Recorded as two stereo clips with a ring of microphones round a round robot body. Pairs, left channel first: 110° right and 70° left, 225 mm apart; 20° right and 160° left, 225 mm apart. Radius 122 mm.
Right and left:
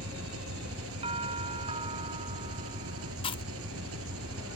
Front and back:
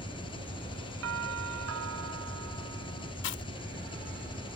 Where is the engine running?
45° left.